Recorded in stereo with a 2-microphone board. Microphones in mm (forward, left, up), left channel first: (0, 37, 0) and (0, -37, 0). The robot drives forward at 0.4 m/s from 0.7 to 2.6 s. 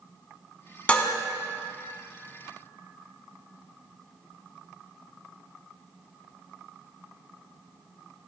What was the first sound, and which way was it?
Dishes clattering, 20° left (ahead or behind).